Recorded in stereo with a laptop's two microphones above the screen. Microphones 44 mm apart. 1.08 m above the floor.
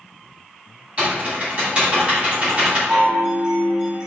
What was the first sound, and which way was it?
Typing on a keyboard, 30° right (ahead or behind).